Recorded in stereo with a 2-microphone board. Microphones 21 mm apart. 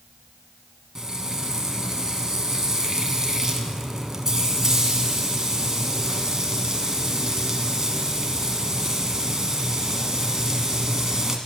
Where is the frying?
25° right (ahead or behind), 1.2 m.